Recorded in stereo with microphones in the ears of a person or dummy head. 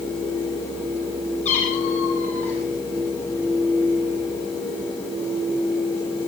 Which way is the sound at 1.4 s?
40° left (ahead or behind).